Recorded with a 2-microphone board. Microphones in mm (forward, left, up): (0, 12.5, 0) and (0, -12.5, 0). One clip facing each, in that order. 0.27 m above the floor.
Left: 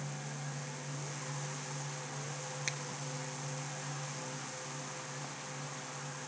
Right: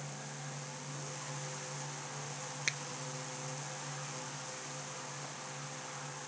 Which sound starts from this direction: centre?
A finger snap, at 2.7 s.